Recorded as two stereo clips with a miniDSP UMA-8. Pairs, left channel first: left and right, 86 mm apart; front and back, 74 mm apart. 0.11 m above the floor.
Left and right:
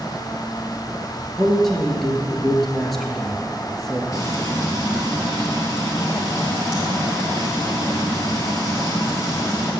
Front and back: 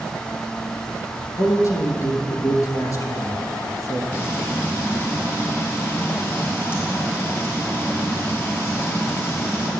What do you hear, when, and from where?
1.4 s a man speaking: straight ahead, 1.6 m
4.1 s frying: 50° left, 2.5 m